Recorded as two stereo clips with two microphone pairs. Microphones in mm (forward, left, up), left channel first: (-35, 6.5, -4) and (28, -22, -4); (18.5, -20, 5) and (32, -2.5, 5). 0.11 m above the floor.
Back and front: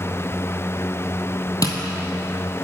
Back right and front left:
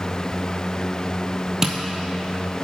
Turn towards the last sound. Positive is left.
turn(degrees=125)